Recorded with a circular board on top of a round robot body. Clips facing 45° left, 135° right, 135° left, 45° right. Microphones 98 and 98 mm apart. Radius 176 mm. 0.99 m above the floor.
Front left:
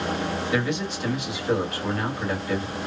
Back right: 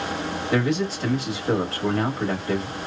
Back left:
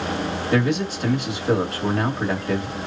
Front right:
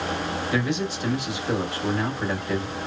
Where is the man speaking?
175° left, 1.6 m.